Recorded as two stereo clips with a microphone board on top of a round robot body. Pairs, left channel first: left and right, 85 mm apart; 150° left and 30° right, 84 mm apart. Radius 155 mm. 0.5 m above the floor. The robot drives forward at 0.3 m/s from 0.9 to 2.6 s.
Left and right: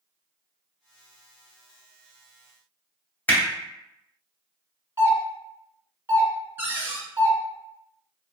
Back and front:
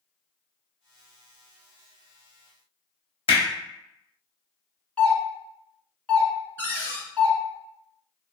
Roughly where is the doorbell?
Behind right.